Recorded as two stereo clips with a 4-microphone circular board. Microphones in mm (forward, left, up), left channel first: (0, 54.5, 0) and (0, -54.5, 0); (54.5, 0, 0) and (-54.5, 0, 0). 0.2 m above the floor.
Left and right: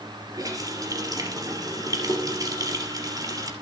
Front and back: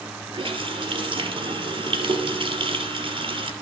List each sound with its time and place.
0.3 s a running tap: 145° right, 3 m